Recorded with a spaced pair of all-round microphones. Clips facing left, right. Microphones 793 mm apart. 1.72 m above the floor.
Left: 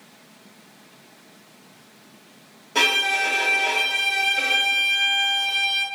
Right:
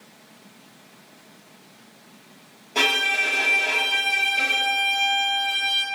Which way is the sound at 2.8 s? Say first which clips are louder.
Left 1 dB; 50° left (ahead or behind).